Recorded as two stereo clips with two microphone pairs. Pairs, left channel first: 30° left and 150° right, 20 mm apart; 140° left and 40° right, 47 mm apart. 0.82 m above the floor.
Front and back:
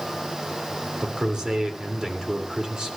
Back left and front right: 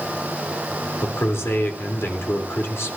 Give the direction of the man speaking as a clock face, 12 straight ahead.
7 o'clock.